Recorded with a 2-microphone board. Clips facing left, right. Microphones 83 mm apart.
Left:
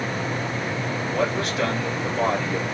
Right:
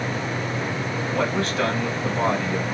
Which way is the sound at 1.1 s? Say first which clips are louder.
Right 1 dB; 35° right (ahead or behind).